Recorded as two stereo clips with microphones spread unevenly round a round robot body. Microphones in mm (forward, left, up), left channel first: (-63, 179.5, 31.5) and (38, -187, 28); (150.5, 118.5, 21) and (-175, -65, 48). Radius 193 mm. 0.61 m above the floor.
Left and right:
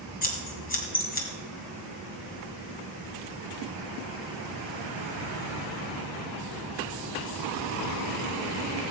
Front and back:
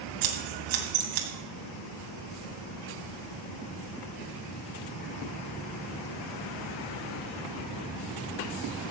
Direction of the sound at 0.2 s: 175° left.